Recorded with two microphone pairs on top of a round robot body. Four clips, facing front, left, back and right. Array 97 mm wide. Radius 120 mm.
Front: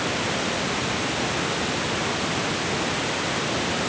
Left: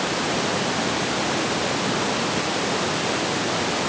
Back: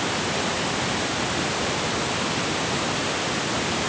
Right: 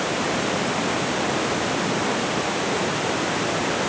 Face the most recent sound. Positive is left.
No sound to turn to.